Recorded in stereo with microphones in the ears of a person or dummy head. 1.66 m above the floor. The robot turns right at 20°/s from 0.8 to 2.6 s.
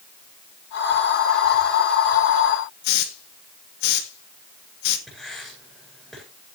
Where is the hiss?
65° left (ahead or behind), 2 m.